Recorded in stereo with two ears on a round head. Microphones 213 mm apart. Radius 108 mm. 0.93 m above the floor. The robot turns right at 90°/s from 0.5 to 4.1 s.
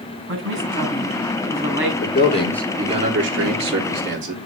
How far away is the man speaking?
About 2.5 m.